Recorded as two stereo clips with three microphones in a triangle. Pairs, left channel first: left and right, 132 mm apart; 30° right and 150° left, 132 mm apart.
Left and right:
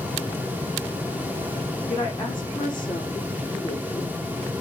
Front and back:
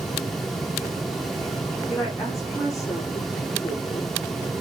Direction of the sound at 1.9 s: 35° left.